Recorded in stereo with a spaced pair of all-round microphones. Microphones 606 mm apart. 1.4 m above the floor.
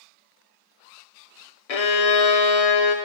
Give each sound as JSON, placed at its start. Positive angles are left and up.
{"t": 1.7, "sound": "a violin", "side_deg": 70, "distance_m": 0.7}